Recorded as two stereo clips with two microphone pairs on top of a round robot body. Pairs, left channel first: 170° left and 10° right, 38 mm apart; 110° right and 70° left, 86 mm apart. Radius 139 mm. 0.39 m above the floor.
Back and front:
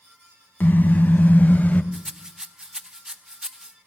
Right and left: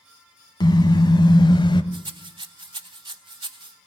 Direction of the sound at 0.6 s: 150° right.